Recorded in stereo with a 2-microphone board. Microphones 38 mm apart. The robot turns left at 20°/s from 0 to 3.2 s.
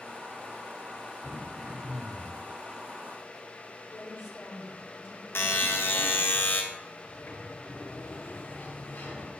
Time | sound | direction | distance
1.2 | throat clearing | 30° left (ahead or behind) | 3.5 m
3.9 | a woman speaking | 80° left | 6.5 m
5.3 | a buzzer | 75° left (ahead or behind) | 2 m
7.0 | a sliding door | 70° left (ahead or behind) | 10 m